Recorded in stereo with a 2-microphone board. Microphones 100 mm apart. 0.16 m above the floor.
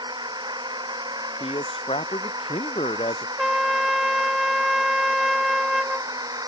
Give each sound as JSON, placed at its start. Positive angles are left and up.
{"t": 0.0, "sound": "a drone", "side_deg": -45}
{"t": 1.4, "sound": "a man speaking", "side_deg": 80}
{"t": 3.4, "sound": "a trumpet", "side_deg": 0}